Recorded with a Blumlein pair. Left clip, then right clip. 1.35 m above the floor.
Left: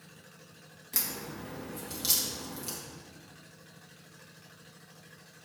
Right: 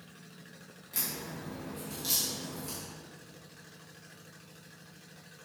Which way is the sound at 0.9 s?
65° left.